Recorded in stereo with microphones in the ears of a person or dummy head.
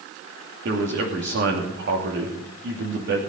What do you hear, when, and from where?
0.7 s a man speaking: 60° right (ahead or behind), 2.5 m